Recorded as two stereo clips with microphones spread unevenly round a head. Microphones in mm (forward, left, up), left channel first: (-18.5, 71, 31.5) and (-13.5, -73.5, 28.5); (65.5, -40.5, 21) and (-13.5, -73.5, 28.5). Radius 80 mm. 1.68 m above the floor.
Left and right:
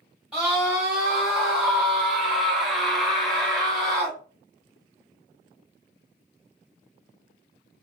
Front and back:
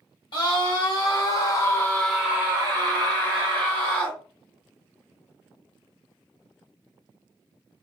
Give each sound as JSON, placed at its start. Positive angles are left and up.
{"t": 0.3, "sound": "a scream", "azimuth_deg": 0, "distance_m": 1.2}